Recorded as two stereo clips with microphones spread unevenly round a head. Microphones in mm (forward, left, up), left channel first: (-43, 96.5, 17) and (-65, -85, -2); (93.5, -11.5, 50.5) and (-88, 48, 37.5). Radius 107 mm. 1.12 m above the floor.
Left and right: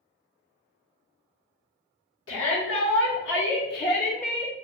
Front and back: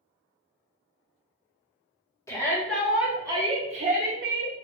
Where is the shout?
60° left, 1.3 m; by 4.5 s 140° left, 1.2 m.